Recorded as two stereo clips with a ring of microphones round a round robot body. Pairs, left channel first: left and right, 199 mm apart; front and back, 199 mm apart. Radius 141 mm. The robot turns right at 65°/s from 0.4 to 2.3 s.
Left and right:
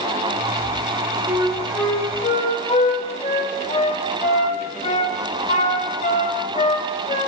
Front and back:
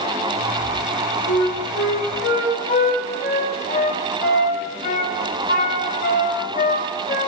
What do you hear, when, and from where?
1.3 s a flute: 30° right, 1.3 m; by 7.3 s 40° left, 1.3 m